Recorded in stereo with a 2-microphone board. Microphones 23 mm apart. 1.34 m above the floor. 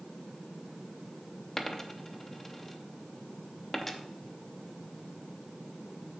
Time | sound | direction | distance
1.6 | a dropped coin | 15° left (ahead or behind) | 0.7 m